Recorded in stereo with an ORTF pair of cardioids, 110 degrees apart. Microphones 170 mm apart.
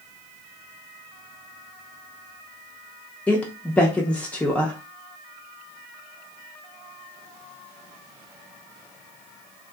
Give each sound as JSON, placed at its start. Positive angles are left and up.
{"t": 3.3, "sound": "a woman speaking", "azimuth_deg": 10, "distance_m": 0.5}